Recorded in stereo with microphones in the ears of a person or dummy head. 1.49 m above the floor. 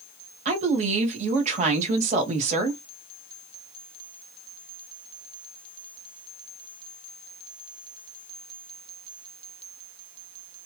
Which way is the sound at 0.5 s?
35° right (ahead or behind).